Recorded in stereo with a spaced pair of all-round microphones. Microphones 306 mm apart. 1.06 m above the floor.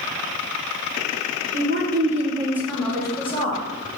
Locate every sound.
1.5 s a woman speaking: 45° right (ahead or behind), 0.9 m; by 3.6 s 25° left (ahead or behind), 1.2 m